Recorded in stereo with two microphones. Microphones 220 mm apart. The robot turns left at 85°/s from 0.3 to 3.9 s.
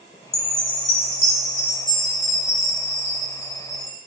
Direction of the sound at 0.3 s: 115° right.